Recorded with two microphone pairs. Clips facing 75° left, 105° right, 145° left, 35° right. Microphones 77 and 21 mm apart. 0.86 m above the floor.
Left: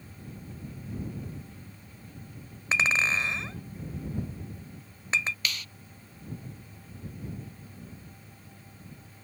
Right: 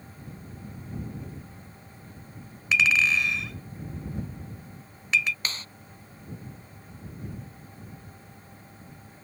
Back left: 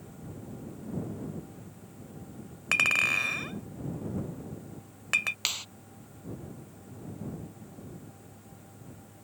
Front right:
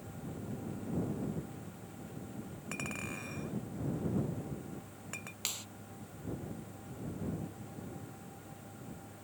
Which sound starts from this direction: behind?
A clap, at 5.5 s.